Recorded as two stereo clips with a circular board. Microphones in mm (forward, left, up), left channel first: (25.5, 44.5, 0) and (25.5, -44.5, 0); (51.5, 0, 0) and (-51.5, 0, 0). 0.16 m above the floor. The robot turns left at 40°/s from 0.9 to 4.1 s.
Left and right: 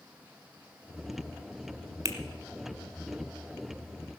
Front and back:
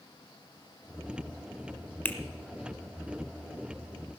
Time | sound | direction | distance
2.0 | a finger snap | 60° right | 1.5 m